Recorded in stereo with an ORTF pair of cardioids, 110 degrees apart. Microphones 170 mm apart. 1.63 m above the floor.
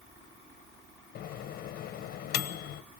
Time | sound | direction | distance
1.1 | a microwave | 60° left | 1.2 m